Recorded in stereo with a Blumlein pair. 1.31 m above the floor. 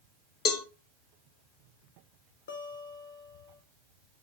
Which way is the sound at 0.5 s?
30° left.